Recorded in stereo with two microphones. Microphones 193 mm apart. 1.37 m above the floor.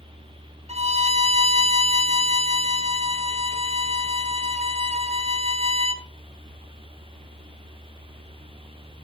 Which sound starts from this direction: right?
A violin, at 0.7 s.